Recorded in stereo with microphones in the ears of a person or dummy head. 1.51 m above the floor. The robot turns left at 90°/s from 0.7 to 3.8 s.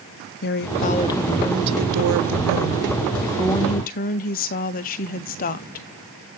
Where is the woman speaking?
55° left, 0.6 m; by 6.3 s 135° left, 0.6 m.